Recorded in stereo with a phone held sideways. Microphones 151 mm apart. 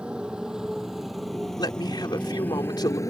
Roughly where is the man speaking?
Left.